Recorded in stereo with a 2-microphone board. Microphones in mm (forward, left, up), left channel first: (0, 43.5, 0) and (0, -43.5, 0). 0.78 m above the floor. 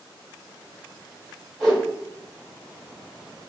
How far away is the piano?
No piano in this recording.